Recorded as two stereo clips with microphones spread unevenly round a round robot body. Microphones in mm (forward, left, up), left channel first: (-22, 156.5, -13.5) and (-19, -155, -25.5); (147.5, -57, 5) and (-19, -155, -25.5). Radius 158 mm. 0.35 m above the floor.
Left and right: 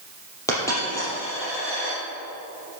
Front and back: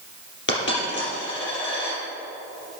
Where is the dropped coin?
10° left, 5 m.